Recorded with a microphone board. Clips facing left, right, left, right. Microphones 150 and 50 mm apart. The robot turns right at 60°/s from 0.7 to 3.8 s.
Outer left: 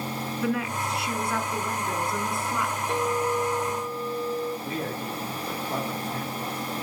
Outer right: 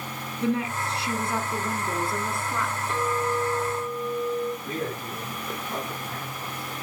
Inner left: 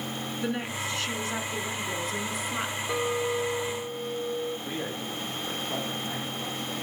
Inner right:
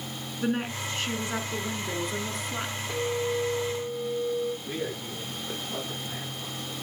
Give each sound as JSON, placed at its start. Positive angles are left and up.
{"t": 0.4, "sound": "a woman speaking", "side_deg": -30, "distance_m": 1.4}
{"t": 2.9, "sound": "a clink", "azimuth_deg": 105, "distance_m": 4.0}
{"t": 4.6, "sound": "a man speaking", "side_deg": 45, "distance_m": 5.5}